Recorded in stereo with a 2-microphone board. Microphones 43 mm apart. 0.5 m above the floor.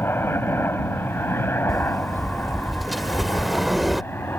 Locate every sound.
0.0 s a helicopter: 65° left (ahead or behind)
1.7 s a sliding door: centre (ahead or behind)